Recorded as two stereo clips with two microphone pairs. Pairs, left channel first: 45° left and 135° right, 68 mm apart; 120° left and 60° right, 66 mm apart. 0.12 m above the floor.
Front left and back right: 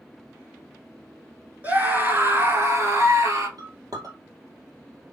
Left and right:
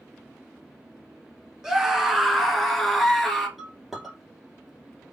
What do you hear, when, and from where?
1.6 s a scream: 125° right, 1.4 m; by 3.5 s 150° right, 2 m
3.6 s a clink: 145° right, 1.9 m